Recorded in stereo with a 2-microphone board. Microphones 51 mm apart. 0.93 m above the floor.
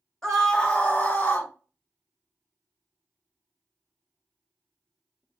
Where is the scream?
10° left (ahead or behind), 0.9 m; by 1.5 s 40° left (ahead or behind), 1.1 m.